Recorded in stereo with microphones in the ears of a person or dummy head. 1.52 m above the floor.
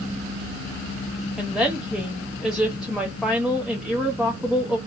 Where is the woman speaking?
Centre (ahead or behind), 0.6 m.